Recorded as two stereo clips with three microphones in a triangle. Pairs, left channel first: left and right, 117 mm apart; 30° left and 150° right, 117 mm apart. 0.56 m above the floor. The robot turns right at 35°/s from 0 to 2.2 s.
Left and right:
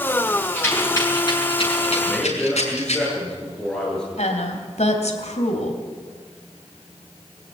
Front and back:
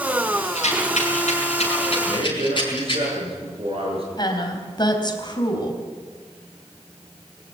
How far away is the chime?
I don't hear a chime.